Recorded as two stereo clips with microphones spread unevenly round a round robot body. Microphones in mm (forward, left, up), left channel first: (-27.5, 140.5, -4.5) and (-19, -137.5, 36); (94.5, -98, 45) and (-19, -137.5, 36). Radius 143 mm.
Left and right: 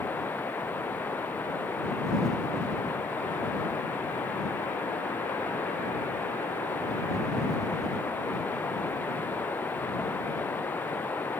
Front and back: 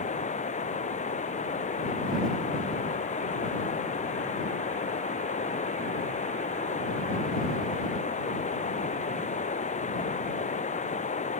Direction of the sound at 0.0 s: 10° left.